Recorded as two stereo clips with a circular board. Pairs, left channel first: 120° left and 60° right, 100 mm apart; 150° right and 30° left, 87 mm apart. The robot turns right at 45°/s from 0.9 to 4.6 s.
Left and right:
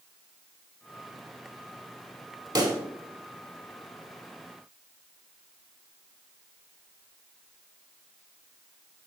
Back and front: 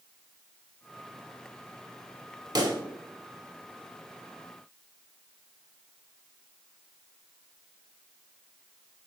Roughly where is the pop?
Ahead.